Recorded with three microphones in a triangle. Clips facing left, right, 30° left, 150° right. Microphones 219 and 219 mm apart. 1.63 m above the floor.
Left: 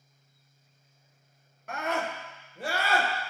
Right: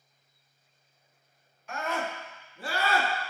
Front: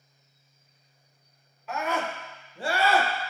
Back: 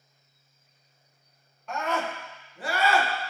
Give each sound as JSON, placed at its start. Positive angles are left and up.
{"t": 1.7, "sound": "a scream", "azimuth_deg": 115, "distance_m": 1.1}